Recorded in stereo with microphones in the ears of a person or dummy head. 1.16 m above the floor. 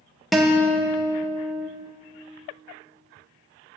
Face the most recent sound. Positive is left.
turn(degrees=-5)  # may be behind; listen again after turning